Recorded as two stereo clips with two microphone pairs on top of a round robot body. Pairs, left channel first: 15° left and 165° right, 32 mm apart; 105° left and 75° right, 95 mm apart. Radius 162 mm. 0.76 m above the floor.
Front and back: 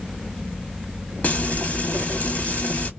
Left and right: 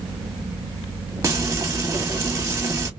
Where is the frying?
20° right, 1.7 m.